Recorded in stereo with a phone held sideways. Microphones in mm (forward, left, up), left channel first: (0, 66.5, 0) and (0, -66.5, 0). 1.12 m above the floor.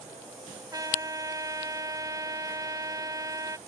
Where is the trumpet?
25° right (ahead or behind).